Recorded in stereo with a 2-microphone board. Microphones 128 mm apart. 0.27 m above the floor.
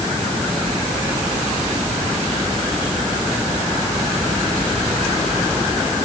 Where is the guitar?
No guitar in this recording.